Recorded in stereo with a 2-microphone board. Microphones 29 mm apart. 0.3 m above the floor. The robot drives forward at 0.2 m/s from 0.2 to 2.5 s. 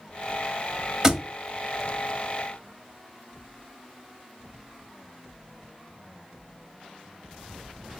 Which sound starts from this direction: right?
A thud, at 1.0 s.